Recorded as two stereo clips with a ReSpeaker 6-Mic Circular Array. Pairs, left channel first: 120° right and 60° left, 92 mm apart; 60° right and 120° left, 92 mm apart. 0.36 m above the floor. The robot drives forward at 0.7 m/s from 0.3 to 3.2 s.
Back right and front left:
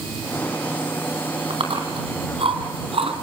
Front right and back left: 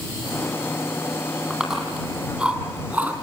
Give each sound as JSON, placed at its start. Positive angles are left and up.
{"t": 1.5, "sound": "chewing", "azimuth_deg": 35, "distance_m": 3.5}